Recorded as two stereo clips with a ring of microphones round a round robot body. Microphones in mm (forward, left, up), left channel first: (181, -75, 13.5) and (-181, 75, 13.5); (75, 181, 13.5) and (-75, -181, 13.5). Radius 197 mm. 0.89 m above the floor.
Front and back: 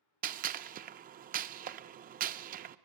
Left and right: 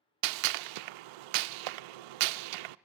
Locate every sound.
0.2 s a gunshot: 130° right, 0.5 m